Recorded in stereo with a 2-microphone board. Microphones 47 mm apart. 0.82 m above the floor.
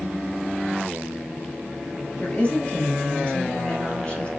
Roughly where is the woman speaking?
Left.